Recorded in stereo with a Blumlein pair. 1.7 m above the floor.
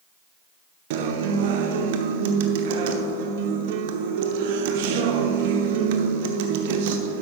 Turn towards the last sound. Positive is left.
turn(degrees=-50)